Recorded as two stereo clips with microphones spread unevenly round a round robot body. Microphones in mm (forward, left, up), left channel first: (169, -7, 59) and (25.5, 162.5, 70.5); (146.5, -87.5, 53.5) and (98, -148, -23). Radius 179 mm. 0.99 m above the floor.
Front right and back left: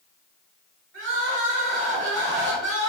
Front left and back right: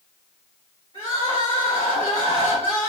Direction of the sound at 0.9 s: 145° left.